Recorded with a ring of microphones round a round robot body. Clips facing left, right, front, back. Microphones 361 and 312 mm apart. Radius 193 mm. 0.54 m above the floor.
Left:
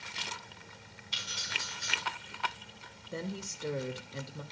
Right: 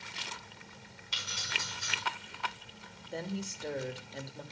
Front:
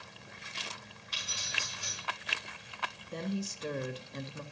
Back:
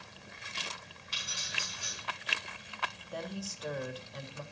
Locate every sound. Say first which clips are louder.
1.1 s keys jangling: right 1 dB, even; 115° right, 5 m
3.1 s a woman speaking: right 1 dB, front 5 dB; 20° left, 1.2 m